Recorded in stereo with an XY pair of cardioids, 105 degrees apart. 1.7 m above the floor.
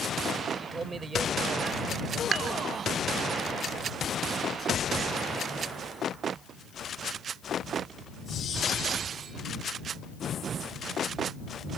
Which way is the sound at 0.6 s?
35° right.